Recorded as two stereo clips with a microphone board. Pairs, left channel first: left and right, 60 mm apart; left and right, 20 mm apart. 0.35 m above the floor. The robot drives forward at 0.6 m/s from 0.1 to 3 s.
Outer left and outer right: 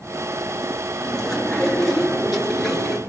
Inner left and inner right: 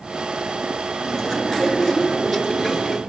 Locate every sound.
1.0 s chewing: 10° left (ahead or behind), 5 m; by 3.0 s 5° left (ahead or behind), 6 m